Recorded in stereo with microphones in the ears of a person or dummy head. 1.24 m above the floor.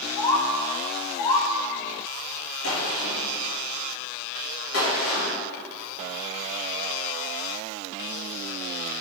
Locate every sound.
0.2 s a bird: 20° left (ahead or behind), 0.6 m
2.6 s a gunshot: 85° left, 2 m